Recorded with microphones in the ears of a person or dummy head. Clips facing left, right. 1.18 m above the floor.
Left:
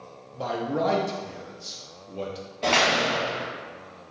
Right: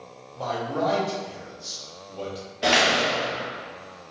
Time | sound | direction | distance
0.3 | a man speaking | 30° left (ahead or behind) | 0.7 m
2.6 | a door slam | 10° right (ahead or behind) | 0.6 m